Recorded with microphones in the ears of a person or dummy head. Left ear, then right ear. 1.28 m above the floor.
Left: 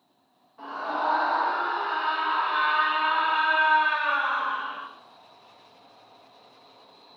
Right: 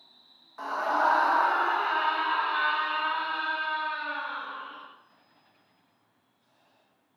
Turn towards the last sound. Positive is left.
turn(degrees=50)  # may be behind; listen again after turning